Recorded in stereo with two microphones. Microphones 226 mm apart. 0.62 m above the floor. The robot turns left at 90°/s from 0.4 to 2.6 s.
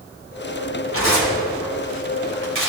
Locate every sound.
0.9 s tearing paper: 75° left (ahead or behind), 2.5 m; by 2.7 s 65° right (ahead or behind), 2.5 m